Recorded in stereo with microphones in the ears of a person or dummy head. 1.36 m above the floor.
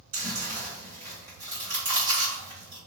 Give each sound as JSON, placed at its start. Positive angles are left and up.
{"t": 0.1, "sound": "chewing", "side_deg": -40, "distance_m": 2.0}